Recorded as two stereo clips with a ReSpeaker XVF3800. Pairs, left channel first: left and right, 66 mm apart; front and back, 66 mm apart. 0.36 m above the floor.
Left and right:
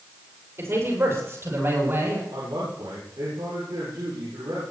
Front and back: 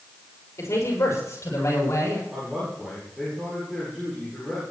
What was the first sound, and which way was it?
A man speaking, 45° right.